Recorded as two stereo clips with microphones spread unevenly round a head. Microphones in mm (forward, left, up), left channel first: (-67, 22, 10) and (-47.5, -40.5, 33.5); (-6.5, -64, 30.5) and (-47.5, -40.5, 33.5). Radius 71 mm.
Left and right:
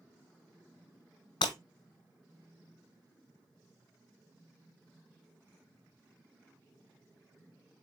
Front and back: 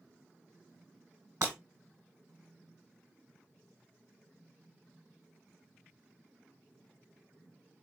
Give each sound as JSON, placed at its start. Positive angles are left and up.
{"t": 1.4, "sound": "breaking glass", "azimuth_deg": 90, "distance_m": 1.1}